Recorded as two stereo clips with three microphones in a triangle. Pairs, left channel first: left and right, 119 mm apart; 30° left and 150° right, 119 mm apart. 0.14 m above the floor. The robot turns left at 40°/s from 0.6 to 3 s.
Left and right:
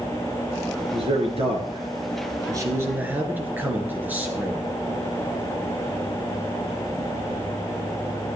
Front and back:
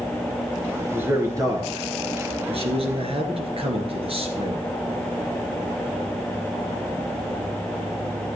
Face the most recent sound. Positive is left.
turn(degrees=-165)